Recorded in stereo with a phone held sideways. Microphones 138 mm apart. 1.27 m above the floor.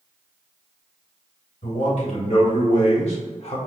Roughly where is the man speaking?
Left.